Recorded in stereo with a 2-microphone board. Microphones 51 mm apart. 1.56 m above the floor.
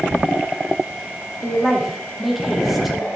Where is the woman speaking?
5° right (ahead or behind), 2.5 m.